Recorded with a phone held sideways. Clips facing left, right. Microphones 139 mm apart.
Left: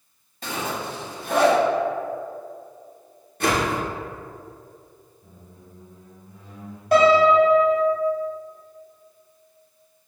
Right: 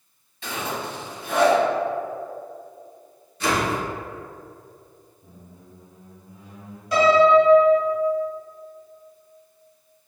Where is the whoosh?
55° left (ahead or behind), 1.0 m.